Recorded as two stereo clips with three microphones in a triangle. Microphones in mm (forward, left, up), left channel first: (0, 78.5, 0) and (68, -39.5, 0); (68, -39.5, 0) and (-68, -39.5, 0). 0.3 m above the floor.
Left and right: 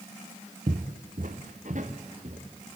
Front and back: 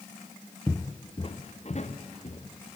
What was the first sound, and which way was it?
Footsteps, 70° right.